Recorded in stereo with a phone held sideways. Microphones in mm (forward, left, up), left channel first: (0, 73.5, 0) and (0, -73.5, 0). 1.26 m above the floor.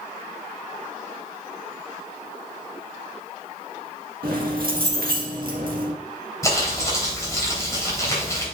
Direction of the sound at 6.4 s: 20° left (ahead or behind).